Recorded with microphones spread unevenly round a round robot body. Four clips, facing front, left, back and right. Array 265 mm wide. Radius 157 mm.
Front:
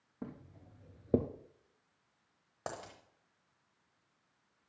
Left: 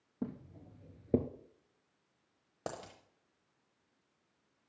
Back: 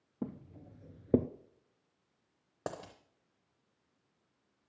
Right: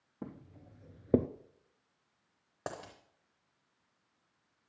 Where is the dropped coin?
155° left, 0.6 m.